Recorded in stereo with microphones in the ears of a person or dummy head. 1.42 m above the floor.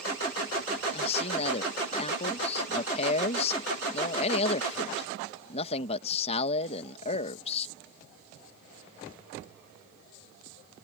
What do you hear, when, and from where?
0.9 s a man speaking: 35° left (ahead or behind)